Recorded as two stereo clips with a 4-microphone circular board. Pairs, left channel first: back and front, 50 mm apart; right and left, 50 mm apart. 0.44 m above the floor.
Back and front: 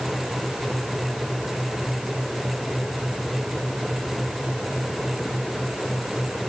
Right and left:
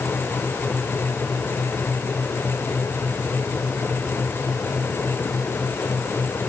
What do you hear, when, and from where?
Only background noise.